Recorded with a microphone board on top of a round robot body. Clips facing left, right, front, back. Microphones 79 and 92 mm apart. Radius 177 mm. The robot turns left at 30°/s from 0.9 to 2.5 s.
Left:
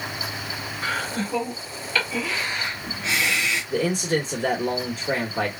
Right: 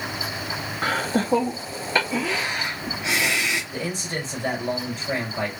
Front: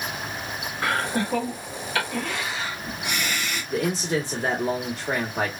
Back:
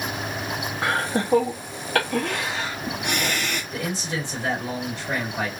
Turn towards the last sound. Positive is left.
turn(degrees=55)